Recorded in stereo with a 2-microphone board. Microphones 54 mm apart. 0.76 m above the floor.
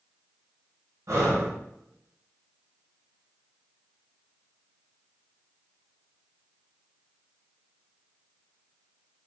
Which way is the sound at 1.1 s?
65° right (ahead or behind).